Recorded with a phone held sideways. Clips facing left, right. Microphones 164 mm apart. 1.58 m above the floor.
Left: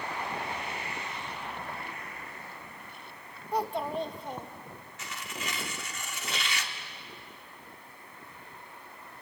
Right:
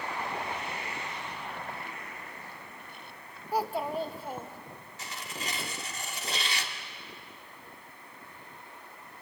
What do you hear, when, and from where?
3.5 s a child speaking: 5° right (ahead or behind), 1.1 m
5.0 s tearing paper: 35° right (ahead or behind), 1.7 m